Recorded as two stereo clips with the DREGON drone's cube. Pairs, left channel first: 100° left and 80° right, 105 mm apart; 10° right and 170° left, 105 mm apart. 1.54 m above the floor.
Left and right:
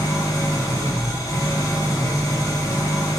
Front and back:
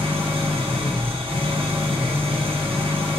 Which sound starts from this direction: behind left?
An engine running, at 0.0 s.